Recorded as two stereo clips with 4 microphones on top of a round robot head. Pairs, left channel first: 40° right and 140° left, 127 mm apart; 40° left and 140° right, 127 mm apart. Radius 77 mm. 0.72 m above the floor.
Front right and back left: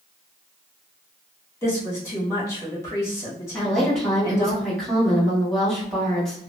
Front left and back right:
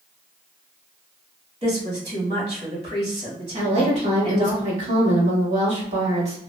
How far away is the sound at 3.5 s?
About 1.6 m.